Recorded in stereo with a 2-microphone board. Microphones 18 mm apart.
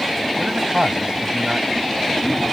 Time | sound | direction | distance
0.4 | a man speaking | 55° right (ahead or behind) | ?